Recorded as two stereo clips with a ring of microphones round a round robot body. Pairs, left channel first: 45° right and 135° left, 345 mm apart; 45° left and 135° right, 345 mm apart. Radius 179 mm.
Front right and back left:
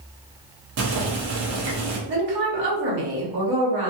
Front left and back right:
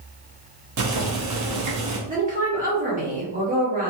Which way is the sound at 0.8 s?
175° right.